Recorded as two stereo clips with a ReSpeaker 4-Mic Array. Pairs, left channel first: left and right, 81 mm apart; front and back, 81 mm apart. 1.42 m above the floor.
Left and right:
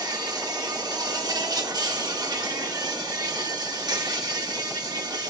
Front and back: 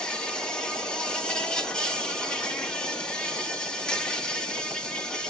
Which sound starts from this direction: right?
An insect, at 0.0 s.